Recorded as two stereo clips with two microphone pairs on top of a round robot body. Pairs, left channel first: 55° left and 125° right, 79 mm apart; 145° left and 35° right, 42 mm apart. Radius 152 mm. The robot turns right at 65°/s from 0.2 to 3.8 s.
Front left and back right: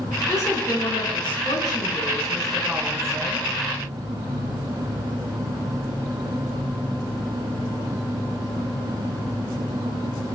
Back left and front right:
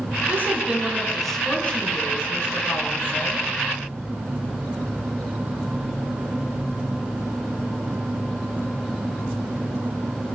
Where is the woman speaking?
5° right, 8 m; by 3.5 s 155° right, 8 m.